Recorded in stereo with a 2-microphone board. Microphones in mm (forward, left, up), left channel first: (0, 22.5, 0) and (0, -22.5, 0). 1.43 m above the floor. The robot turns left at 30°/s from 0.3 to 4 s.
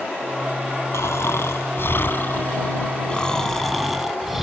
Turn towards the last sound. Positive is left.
turn(degrees=-5)